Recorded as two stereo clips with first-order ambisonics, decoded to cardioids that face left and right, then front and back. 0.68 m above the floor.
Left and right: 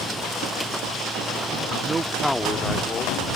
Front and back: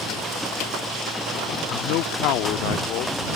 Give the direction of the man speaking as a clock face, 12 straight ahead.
1 o'clock.